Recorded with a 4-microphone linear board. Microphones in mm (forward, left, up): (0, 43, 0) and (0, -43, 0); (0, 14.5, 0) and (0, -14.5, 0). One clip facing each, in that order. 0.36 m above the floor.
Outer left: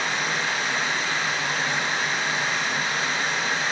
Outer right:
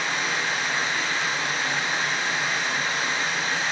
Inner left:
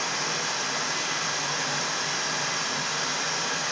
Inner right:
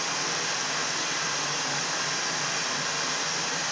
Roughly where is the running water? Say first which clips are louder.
Outer left 1 dB, inner left 1 dB; left.